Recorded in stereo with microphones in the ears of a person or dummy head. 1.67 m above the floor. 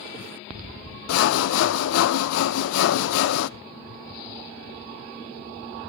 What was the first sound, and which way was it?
Sawing, 80° left.